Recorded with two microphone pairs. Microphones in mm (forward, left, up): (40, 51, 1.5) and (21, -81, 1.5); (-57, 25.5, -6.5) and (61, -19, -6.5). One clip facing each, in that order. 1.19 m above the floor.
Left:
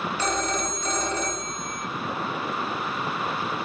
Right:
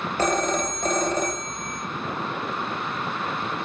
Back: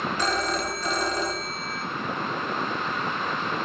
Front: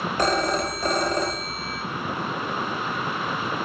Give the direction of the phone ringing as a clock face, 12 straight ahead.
2 o'clock.